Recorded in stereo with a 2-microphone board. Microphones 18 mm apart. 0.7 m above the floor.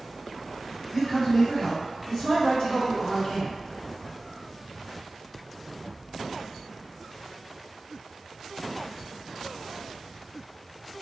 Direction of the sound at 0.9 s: 25° left (ahead or behind).